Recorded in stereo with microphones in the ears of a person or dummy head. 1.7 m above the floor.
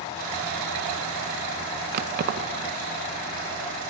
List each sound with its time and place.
1.9 s keys jangling: 45° right (ahead or behind), 1.1 m